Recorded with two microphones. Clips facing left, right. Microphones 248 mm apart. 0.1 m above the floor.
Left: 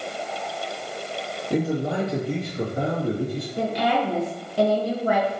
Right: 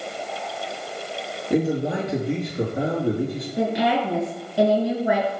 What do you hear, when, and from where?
1.5 s a man speaking: 15° right (ahead or behind), 1.7 m
3.6 s a woman speaking: 10° right (ahead or behind), 1.1 m